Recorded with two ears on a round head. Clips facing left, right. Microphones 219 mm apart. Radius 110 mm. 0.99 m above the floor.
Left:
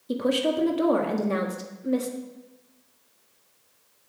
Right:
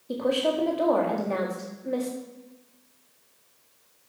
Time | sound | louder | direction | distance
0.1 | a woman speaking | left 1 dB | 25° left (ahead or behind) | 1.4 m